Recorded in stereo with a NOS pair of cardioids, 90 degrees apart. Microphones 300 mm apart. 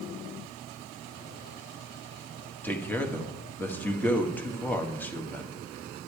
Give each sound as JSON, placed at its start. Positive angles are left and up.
{"t": 2.6, "sound": "a man speaking", "azimuth_deg": 5, "distance_m": 1.6}